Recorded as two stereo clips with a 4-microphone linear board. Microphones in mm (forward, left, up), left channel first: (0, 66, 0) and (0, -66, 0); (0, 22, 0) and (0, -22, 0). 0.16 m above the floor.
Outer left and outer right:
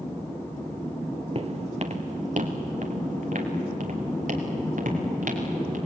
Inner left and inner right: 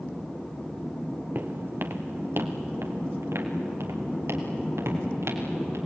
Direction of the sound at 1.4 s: 50° right (ahead or behind).